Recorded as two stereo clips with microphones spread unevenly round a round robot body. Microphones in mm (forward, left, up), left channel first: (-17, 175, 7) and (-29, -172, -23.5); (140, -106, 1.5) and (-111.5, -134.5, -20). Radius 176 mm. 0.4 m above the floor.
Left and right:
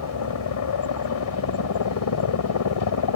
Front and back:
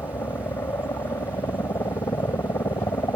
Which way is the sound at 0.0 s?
85° left.